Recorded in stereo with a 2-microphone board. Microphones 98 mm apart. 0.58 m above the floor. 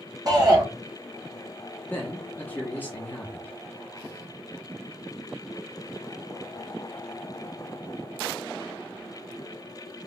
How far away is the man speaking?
About 0.6 m.